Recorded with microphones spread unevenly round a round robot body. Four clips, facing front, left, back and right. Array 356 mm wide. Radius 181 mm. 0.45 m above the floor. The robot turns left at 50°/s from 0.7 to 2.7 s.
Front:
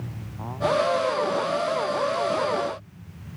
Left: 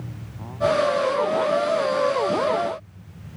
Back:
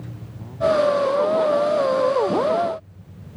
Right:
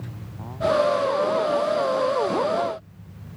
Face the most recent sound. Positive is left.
No sound to turn to.